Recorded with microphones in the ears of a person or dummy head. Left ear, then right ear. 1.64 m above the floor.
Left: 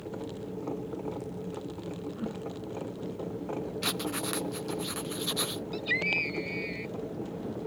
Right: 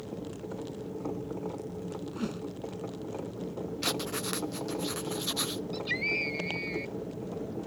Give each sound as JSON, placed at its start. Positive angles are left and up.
{"t": 2.1, "sound": "a whoosh", "side_deg": -80}
{"t": 3.8, "sound": "writing", "side_deg": 0}
{"t": 5.7, "sound": "a scream", "side_deg": 5}